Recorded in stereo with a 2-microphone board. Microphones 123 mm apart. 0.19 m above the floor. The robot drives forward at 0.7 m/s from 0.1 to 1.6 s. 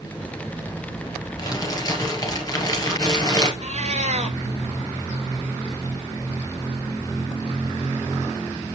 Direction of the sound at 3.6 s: 60° right (ahead or behind).